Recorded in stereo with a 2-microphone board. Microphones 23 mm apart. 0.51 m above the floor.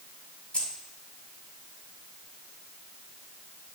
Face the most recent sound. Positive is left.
turn(degrees=45)  # may be behind; listen again after turning